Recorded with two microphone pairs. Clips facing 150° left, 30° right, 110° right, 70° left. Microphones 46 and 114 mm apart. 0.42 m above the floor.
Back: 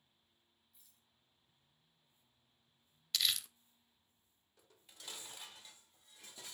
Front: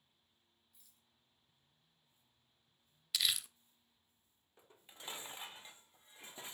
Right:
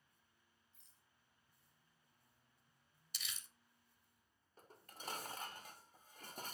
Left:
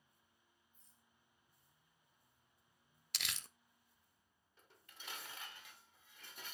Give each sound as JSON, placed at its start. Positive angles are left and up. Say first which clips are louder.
{"t": 0.7, "sound": "a rattle", "louder": "even, left 2 dB", "azimuth_deg": -110, "distance_m": 3.5}
{"t": 3.1, "sound": "crumpling", "louder": "even, left 6 dB", "azimuth_deg": 60, "distance_m": 0.6}
{"t": 4.6, "sound": "dishes clattering", "louder": "front 4 dB, right 6 dB", "azimuth_deg": -80, "distance_m": 0.6}